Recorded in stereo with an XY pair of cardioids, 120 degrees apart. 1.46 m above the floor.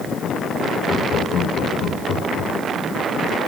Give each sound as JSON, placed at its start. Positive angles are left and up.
{"t": 0.9, "sound": "laughter", "azimuth_deg": 55, "distance_m": 6.5}